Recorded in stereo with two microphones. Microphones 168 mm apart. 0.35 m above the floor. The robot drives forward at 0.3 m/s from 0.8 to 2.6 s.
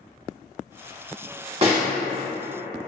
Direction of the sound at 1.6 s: 40° right (ahead or behind).